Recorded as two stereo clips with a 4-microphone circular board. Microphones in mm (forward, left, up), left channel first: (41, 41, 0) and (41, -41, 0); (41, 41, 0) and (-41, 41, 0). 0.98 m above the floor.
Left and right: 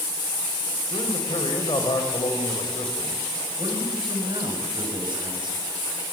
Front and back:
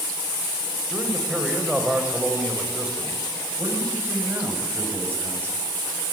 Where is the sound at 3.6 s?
110° right, 7 m.